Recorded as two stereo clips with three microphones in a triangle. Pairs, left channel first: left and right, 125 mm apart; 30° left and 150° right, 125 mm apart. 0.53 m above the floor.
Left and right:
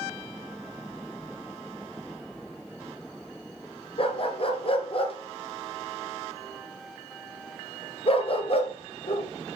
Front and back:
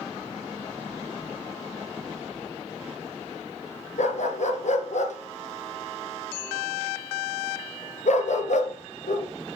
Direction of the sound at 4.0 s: 50° left.